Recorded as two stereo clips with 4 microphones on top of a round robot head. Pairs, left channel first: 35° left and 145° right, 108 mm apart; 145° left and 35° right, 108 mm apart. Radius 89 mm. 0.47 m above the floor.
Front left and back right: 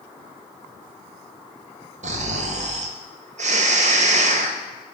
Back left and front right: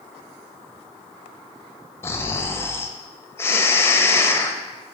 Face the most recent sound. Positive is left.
turn(degrees=-150)